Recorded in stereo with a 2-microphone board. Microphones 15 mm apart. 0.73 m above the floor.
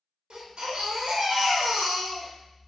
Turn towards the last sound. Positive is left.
turn(degrees=-75)  # may be behind; listen again after turning